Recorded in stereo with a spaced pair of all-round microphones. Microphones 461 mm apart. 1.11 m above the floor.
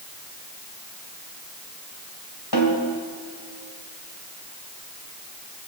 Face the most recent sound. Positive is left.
turn(degrees=55)  # may be behind; listen again after turning